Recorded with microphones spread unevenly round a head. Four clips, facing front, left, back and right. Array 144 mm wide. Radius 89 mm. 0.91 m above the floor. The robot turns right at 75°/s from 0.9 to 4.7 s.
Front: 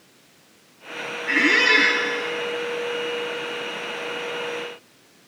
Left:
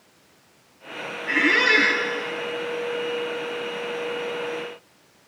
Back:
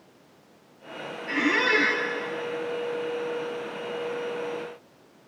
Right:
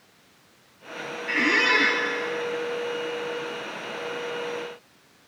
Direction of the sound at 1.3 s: 10° left.